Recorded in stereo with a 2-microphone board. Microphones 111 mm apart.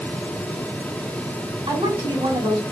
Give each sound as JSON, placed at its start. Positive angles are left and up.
{"t": 1.7, "sound": "a woman speaking", "side_deg": -60, "distance_m": 3.0}